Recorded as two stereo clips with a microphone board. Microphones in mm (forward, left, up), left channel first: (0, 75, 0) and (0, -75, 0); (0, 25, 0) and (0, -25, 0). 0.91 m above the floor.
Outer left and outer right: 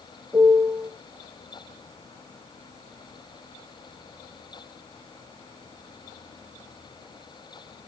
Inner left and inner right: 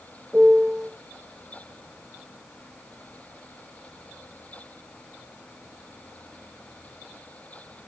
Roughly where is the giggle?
I don't hear a giggle.